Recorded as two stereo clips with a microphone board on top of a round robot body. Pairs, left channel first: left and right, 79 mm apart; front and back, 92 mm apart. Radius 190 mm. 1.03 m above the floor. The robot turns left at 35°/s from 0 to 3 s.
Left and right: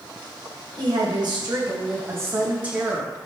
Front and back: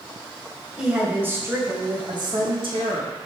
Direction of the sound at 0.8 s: 100° right.